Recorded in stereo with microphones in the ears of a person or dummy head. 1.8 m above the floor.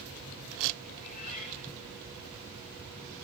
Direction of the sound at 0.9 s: 45° left (ahead or behind).